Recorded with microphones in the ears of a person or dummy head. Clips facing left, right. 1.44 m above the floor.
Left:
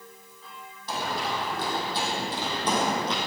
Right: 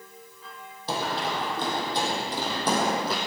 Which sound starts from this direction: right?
Running footsteps, at 0.9 s.